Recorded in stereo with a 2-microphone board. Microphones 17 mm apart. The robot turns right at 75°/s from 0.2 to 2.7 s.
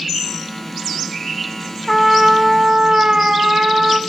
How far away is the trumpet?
About 0.7 m.